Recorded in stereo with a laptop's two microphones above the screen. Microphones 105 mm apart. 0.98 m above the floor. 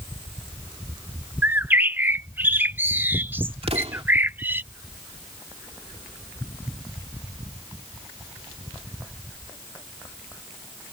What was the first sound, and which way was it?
A bird, 20° right (ahead or behind).